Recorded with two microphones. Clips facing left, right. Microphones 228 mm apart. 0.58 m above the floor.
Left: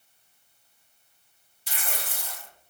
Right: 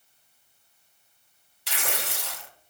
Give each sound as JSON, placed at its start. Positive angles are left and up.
{"t": 1.7, "sound": "tearing paper", "side_deg": -75, "distance_m": 0.6}